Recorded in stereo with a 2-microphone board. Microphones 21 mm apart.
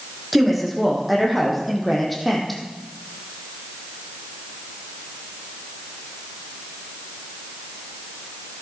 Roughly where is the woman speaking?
Centre.